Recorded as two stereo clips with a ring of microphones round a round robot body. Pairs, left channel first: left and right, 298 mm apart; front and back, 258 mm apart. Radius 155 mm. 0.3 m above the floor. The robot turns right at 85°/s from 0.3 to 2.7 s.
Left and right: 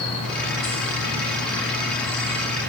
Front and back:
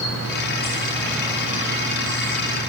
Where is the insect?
20° left, 1.8 m; by 2.7 s 135° right, 1.8 m.